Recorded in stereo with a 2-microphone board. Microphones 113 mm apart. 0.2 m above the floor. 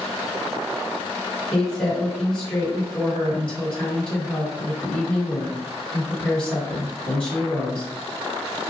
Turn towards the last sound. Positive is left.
turn(degrees=10)  # may be behind; listen again after turning